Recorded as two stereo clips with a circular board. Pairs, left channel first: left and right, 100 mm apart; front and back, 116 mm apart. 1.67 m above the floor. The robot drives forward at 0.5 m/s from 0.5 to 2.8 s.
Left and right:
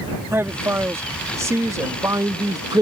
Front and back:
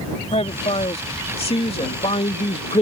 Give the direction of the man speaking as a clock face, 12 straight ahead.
1 o'clock.